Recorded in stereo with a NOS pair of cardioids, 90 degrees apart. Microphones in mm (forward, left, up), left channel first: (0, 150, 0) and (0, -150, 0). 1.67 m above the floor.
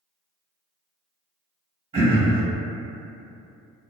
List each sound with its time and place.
1.9 s throat clearing: 20° right, 1.1 m